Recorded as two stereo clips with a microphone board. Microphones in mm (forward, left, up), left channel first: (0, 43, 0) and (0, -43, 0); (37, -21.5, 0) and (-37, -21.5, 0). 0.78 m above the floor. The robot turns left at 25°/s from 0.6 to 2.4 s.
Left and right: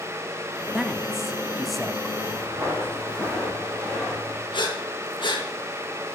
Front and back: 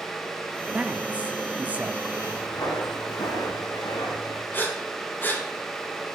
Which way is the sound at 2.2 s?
25° right.